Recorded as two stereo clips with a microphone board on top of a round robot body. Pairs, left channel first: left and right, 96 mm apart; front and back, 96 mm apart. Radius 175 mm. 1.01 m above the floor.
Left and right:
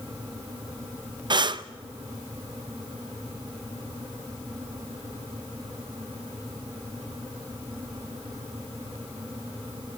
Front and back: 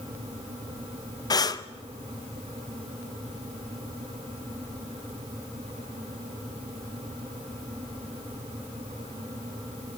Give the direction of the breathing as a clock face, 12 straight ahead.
2 o'clock.